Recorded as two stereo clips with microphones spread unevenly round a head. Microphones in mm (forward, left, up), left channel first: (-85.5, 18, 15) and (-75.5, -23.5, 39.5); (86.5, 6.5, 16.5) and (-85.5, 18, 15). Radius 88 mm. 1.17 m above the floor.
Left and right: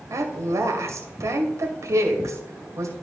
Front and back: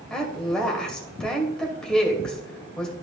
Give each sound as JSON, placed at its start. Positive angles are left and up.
{"t": 0.1, "sound": "a woman speaking", "azimuth_deg": -90, "distance_m": 2.0}